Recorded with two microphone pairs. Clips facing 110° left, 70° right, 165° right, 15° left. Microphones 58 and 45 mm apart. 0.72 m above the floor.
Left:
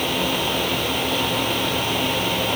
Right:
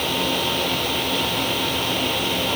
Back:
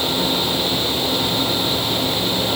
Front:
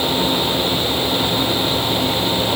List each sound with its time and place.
Only background noise.